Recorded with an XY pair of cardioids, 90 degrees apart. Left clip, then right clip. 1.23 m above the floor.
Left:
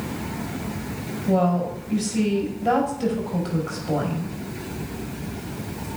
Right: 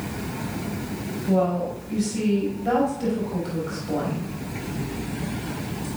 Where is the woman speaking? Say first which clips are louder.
Left 1 dB; 40° left, 5 m.